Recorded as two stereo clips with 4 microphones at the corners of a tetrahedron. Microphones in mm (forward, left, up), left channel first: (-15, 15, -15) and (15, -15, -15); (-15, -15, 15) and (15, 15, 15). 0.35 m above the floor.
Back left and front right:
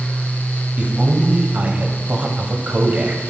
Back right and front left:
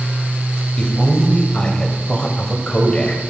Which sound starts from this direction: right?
A man speaking, at 0.8 s.